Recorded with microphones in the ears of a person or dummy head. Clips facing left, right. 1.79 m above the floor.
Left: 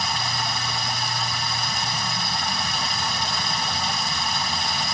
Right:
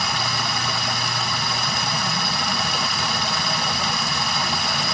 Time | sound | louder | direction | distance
0.0 | running water | right 2 dB | 50° right (ahead or behind) | 1.1 m